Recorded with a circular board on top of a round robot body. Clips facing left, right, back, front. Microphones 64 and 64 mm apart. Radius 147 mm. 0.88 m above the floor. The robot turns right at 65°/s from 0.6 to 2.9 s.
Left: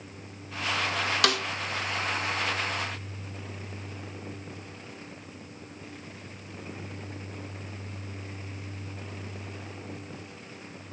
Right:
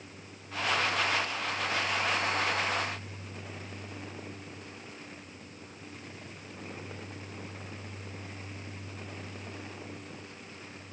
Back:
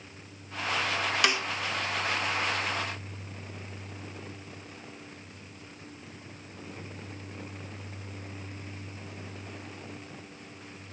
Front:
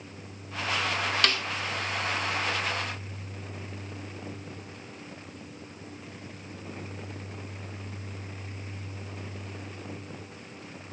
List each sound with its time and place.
1.2 s a snare drum: 100° left; by 1.4 s 115° left